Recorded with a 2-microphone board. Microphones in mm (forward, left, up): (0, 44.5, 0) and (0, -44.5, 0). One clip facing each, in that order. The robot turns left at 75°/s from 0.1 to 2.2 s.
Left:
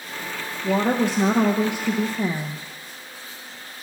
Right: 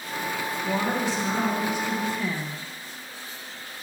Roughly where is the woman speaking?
Behind left.